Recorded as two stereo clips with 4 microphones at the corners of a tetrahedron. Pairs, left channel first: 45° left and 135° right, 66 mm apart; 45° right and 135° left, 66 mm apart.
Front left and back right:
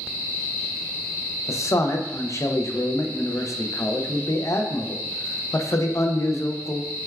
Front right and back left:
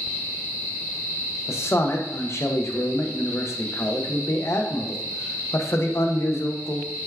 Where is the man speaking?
5° left, 0.5 m.